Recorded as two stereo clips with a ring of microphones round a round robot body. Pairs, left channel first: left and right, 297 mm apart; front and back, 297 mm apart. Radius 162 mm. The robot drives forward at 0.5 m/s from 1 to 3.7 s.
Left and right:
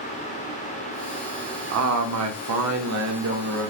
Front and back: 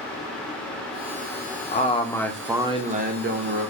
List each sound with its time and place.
1.7 s a man speaking: 60° right, 0.8 m; by 3.7 s 140° right, 1.0 m